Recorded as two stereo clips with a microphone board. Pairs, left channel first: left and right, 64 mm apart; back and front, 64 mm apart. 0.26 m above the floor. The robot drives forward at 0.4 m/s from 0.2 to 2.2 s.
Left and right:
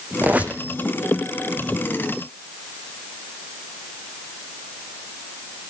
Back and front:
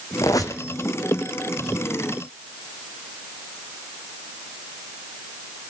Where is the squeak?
155° right, 1.0 m; by 0.6 s 160° right, 1.2 m.